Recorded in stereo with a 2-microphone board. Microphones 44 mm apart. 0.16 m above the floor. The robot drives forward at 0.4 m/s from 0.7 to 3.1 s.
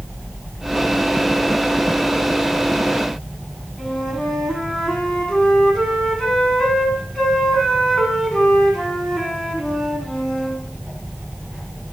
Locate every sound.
3.8 s a flute: 15° left (ahead or behind), 1.2 m